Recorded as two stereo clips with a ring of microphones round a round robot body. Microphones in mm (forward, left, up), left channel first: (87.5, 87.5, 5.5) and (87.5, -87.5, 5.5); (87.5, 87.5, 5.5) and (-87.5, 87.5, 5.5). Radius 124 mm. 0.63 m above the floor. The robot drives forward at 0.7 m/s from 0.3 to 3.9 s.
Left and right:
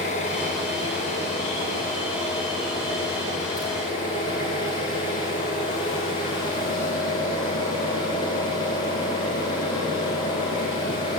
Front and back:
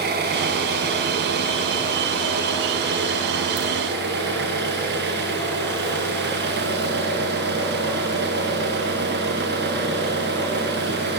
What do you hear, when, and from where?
0.0 s an engine running: 155° left, 6 m; by 11.2 s 165° left, 8 m